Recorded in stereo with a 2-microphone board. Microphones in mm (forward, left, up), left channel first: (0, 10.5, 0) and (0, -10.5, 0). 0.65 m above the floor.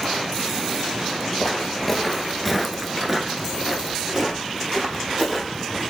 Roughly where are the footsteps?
Centre.